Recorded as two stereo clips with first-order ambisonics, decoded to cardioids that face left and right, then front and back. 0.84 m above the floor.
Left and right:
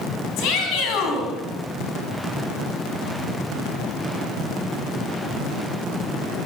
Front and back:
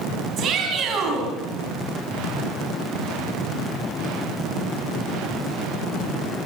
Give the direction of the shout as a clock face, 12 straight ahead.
8 o'clock.